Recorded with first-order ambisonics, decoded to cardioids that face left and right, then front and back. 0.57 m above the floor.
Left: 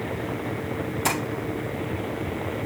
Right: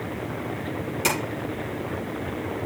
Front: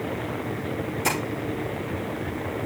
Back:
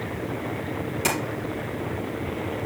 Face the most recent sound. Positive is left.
turn(degrees=-125)